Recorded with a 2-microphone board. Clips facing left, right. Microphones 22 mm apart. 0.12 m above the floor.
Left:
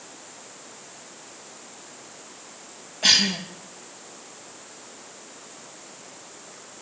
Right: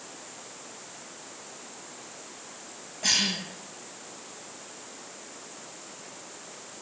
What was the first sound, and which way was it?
A cough, 75° left (ahead or behind).